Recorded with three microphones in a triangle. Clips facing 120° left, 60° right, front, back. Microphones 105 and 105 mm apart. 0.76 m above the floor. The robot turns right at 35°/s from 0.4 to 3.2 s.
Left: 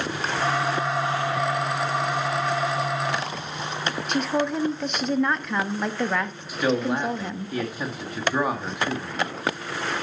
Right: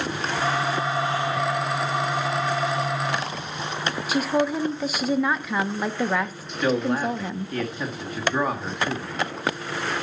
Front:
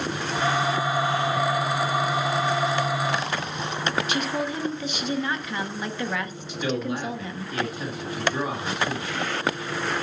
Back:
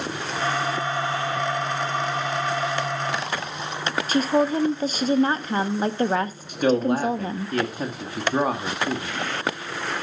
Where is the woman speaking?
145° right, 0.7 m.